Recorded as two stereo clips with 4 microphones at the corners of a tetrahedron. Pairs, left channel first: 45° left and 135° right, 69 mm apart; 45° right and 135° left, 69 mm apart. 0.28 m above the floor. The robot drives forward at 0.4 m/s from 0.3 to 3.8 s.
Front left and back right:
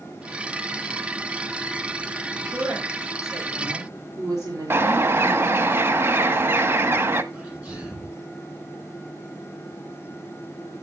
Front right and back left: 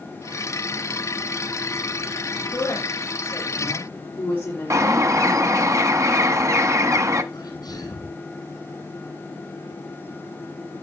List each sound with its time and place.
2.5 s a woman speaking: 100° right, 6 m; by 5.7 s 105° right, 6 m
4.7 s a bird: 170° left, 0.9 m
7.3 s a sneeze: 70° right, 8.5 m